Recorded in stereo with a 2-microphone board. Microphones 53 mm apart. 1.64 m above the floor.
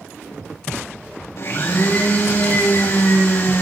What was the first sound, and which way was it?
A blender, 65° left (ahead or behind).